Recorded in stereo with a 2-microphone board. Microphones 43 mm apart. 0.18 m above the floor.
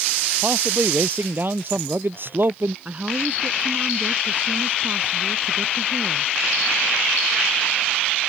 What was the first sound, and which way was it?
A man speaking, 50° right (ahead or behind).